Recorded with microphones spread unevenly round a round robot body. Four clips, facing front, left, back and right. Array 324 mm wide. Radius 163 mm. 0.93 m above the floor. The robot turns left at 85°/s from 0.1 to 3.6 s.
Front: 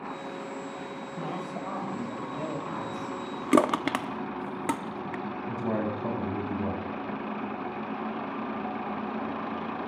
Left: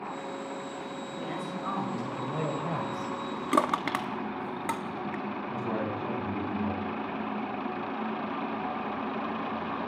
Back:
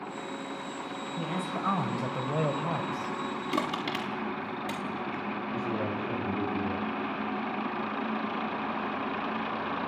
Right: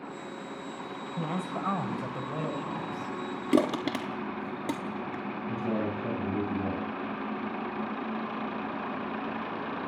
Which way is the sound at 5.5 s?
40° right.